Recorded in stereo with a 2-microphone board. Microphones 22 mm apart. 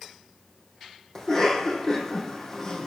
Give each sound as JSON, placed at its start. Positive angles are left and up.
{"t": 1.1, "sound": "a cough", "side_deg": 20, "distance_m": 3.5}